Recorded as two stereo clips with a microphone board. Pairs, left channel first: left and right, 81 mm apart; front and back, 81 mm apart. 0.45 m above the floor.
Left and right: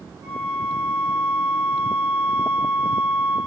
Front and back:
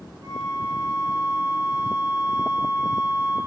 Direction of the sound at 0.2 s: 130° right.